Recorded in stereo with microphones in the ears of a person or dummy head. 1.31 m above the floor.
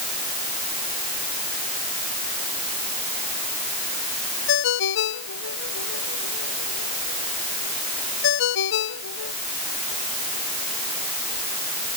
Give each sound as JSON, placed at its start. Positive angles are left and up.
{"t": 4.5, "sound": "a ringtone", "side_deg": 70}